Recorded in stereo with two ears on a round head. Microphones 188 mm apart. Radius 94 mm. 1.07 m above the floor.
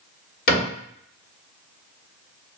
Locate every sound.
0.5 s a cupboard door: 40° left (ahead or behind), 1.6 m